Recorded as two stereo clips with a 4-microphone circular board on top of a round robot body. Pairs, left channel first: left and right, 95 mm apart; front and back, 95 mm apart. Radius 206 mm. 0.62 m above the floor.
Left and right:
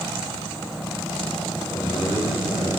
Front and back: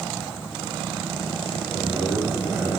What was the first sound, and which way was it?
A man speaking, 120° right.